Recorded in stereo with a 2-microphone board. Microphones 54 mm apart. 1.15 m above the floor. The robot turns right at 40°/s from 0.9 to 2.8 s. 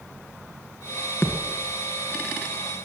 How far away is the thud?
About 1.7 m.